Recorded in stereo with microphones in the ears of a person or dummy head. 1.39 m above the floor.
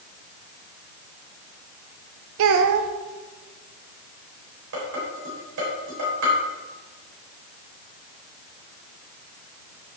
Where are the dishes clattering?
70° right (ahead or behind), 4 m.